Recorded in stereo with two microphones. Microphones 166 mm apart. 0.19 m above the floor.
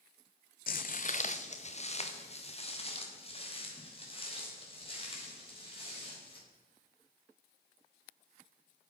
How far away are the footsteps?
About 0.5 m.